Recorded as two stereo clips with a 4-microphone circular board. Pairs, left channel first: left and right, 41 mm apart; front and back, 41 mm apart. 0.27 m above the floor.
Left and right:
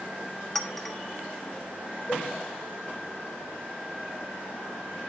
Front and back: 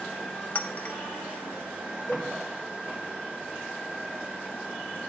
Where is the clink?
10° left, 0.7 m.